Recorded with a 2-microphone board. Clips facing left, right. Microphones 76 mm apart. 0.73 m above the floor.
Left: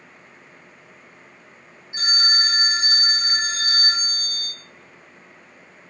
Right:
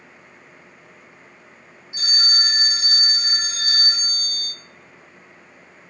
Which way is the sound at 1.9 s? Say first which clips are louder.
Left 3 dB; 30° left (ahead or behind).